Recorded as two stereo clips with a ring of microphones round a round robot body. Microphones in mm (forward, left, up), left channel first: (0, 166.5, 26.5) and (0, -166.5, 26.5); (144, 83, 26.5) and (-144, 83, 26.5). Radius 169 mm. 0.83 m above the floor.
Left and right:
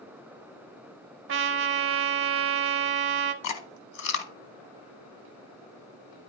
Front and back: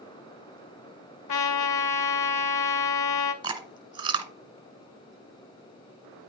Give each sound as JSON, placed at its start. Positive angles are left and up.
{"t": 1.3, "sound": "a trumpet", "azimuth_deg": -35, "distance_m": 0.6}
{"t": 3.4, "sound": "chewing", "azimuth_deg": 110, "distance_m": 1.0}